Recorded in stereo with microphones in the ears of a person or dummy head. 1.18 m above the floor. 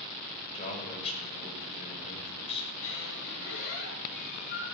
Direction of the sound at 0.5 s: 35° left (ahead or behind).